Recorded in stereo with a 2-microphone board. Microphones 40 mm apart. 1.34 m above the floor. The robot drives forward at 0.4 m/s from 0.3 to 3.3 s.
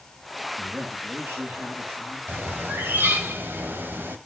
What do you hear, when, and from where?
0.6 s a man speaking: 65° right (ahead or behind), 2.5 m; by 2.2 s 80° right, 2 m
2.3 s a bird: 60° right (ahead or behind), 1.8 m; by 4.2 s 55° right (ahead or behind), 1.9 m